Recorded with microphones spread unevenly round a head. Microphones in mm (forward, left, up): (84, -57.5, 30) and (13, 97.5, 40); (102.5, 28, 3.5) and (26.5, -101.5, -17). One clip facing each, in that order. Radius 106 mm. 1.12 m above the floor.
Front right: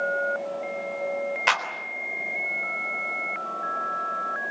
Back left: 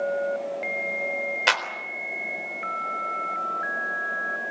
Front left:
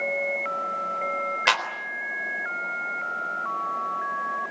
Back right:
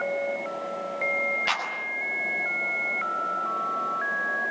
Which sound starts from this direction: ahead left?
A clap, at 1.5 s.